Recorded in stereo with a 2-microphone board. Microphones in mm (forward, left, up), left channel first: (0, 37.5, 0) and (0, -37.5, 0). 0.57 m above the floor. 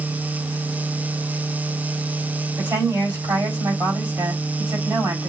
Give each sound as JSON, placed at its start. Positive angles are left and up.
{"t": 2.6, "sound": "a woman speaking", "side_deg": -45, "distance_m": 3.5}